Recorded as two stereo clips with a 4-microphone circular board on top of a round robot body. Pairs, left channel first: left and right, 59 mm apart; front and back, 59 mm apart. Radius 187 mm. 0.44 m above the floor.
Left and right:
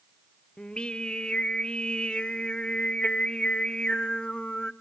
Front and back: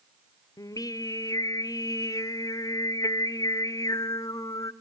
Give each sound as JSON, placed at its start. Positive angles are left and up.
{"t": 0.6, "sound": "singing", "azimuth_deg": 15, "distance_m": 0.7}